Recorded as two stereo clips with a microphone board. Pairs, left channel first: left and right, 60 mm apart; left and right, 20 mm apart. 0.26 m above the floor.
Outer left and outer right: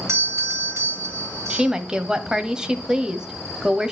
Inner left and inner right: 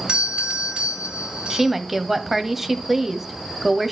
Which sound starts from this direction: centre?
A woman speaking, at 1.5 s.